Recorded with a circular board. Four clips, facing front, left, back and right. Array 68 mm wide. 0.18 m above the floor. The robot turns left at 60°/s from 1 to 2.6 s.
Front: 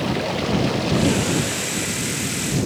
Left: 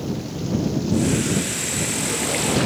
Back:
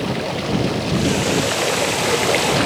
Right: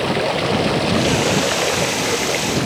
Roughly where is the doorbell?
I don't hear a doorbell.